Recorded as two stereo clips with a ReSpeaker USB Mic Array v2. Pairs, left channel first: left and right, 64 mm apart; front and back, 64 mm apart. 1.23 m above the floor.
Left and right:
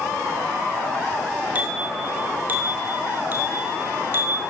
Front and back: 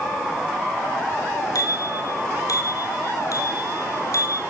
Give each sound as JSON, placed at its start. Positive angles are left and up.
{"t": 1.6, "sound": "a bicycle bell", "azimuth_deg": -25, "distance_m": 6.5}